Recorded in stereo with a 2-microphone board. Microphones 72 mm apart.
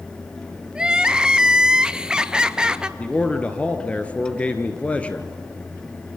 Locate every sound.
0.8 s crying: 10° right (ahead or behind), 0.7 m
3.0 s a man speaking: 20° left (ahead or behind), 1.7 m